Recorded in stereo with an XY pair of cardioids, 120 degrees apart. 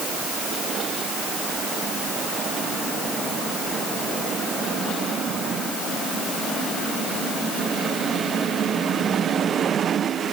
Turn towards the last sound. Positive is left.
No sound to turn to.